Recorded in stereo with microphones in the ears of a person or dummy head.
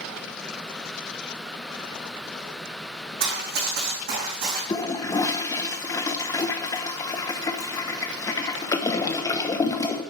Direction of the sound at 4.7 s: 15° left (ahead or behind).